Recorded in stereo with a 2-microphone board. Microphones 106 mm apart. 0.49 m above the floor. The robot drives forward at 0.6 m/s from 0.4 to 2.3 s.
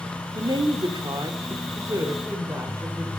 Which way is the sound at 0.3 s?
40° right (ahead or behind).